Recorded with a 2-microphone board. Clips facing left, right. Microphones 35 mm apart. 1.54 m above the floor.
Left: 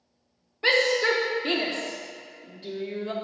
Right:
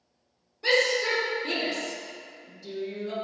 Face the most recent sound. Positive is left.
turn(degrees=45)  # may be behind; listen again after turning